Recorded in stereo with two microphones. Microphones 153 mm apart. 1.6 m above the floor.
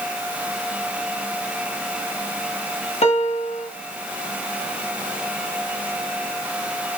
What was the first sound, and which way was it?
A piano, 45° left (ahead or behind).